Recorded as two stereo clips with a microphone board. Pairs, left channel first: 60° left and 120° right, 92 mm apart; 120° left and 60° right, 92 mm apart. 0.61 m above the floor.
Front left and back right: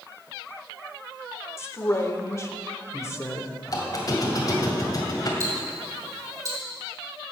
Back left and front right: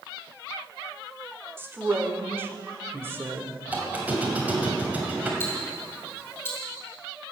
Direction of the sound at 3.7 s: 10° left.